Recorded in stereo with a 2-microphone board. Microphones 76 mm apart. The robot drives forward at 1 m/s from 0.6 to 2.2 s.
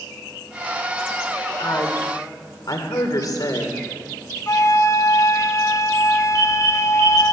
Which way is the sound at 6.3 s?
70° right (ahead or behind).